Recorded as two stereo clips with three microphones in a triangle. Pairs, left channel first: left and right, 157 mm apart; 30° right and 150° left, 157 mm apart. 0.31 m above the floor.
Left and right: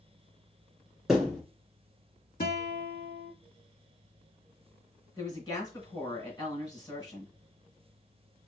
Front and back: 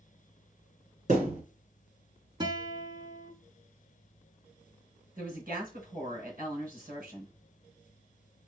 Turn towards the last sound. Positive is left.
turn(degrees=150)